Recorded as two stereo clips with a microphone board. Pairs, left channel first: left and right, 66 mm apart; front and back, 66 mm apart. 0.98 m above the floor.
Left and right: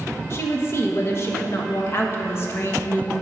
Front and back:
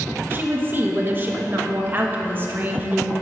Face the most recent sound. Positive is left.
turn(degrees=130)